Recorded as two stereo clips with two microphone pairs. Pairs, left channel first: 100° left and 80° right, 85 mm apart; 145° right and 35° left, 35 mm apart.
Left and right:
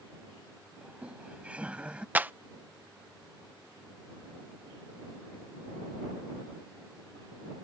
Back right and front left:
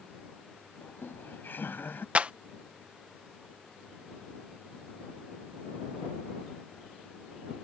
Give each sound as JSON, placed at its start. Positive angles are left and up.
{"t": 0.8, "sound": "laughter", "azimuth_deg": -155}
{"t": 2.1, "sound": "a clap", "azimuth_deg": -15}